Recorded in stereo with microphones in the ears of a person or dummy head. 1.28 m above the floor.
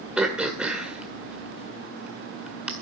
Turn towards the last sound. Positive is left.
turn(degrees=-5)  # may be behind; listen again after turning